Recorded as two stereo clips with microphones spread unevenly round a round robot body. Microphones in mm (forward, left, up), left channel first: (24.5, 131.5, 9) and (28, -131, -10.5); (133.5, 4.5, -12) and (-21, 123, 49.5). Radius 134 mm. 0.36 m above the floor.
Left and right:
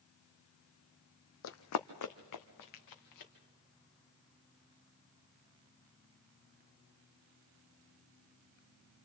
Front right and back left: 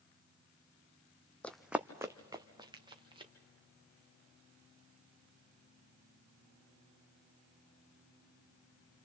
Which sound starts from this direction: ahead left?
Running footsteps, at 1.4 s.